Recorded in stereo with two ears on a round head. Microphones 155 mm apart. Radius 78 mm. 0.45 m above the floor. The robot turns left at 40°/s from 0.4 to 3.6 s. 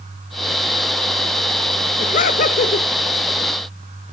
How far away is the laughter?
About 1.6 m.